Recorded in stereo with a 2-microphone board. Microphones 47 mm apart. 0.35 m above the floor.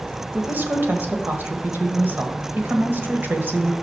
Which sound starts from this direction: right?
A woman speaking, at 0.3 s.